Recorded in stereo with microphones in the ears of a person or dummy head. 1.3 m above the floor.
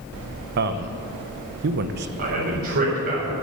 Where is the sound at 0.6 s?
55° right (ahead or behind), 0.9 m.